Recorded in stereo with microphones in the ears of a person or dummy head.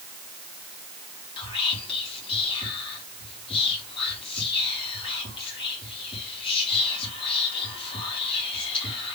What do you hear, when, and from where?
1.4 s whispering: 35° left (ahead or behind), 1.5 m